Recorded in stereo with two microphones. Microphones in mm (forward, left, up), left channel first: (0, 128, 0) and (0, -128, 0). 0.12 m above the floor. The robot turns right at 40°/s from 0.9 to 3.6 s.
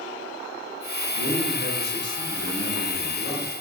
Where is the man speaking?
130° right, 1.6 m; by 3.5 s 35° right, 1.6 m.